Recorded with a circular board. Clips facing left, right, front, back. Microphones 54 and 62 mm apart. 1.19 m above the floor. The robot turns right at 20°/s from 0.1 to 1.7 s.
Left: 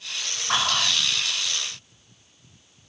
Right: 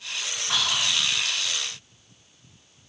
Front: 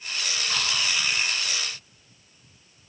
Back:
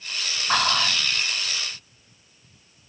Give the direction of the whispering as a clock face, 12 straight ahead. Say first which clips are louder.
Left 3 dB, back 8 dB; 7 o'clock.